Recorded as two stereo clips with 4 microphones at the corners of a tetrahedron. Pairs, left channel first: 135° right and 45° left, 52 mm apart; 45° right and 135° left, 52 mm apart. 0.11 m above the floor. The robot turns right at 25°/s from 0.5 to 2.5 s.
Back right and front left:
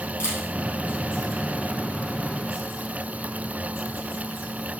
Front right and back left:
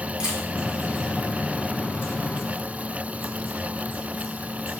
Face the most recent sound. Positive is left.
turn(degrees=-100)